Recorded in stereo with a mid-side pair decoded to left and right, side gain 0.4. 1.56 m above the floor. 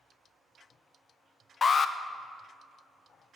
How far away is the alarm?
About 0.5 m.